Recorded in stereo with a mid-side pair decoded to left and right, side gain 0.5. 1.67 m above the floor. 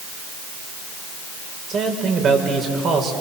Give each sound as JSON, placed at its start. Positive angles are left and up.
{"t": 1.7, "sound": "a man speaking", "azimuth_deg": -50, "distance_m": 6.0}